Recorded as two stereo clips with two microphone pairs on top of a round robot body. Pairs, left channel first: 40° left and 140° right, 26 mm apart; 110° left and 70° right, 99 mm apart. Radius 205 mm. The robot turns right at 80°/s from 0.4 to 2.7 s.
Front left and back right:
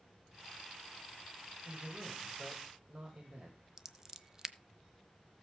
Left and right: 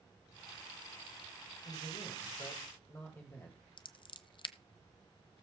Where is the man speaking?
90° left, 3 m; by 3.6 s 170° left, 3 m.